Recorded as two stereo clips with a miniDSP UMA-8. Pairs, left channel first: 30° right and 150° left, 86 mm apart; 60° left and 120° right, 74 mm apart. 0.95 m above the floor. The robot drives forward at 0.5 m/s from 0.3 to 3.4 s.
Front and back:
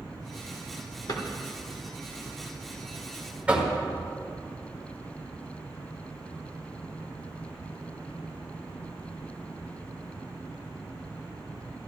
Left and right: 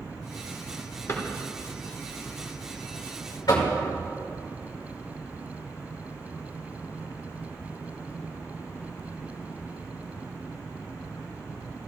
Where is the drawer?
5° left, 1.8 m.